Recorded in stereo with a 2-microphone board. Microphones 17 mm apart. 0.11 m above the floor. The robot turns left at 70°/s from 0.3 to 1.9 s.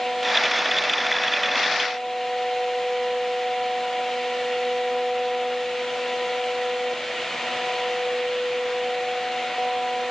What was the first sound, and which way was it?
Only background noise.